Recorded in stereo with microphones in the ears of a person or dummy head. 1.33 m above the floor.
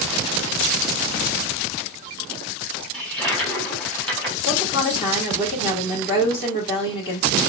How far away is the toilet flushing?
About 1.6 m.